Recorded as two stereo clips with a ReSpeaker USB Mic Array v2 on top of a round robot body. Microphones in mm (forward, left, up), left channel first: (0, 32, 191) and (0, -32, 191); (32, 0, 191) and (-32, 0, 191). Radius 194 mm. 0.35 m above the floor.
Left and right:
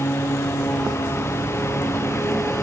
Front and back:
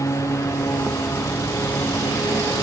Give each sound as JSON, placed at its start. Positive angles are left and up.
{"t": 0.0, "sound": "a lawn mower", "azimuth_deg": 40}